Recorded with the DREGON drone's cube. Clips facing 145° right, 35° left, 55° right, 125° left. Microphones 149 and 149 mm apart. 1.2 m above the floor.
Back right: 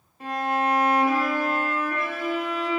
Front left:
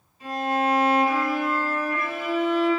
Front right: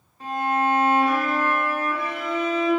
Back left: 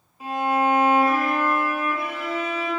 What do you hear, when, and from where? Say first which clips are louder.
0.2 s a violin: front left 1 dB, back left 1 dB; 155° right, 1.4 m